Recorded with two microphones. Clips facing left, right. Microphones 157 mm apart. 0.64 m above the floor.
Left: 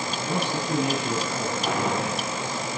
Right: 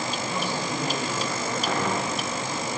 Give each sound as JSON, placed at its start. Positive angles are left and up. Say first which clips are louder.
{"t": 0.2, "sound": "a man speaking", "louder": "left 5 dB", "side_deg": 70, "distance_m": 5.0}
{"t": 1.7, "sound": "a gunshot", "louder": "left 1 dB", "side_deg": 15, "distance_m": 8.0}